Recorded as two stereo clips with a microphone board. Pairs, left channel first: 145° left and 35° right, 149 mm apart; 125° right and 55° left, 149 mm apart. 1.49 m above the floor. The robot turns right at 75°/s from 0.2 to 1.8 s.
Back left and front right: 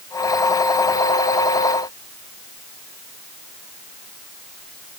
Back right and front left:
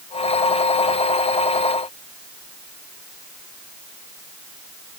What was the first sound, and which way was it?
Only background noise.